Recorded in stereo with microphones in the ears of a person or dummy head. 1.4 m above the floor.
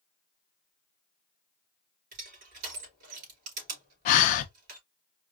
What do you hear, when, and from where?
2.1 s crushing: 50° right (ahead or behind), 3.5 m
4.0 s breathing: 45° left (ahead or behind), 0.6 m